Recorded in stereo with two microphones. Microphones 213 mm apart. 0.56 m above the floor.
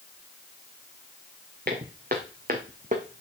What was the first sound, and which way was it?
Footsteps, 45° right (ahead or behind).